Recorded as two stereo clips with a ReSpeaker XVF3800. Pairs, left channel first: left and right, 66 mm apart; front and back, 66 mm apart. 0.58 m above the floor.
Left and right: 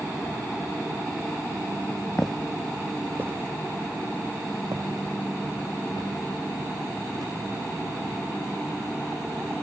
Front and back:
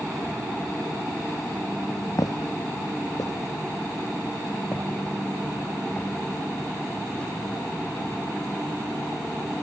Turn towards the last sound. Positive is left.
turn(degrees=-75)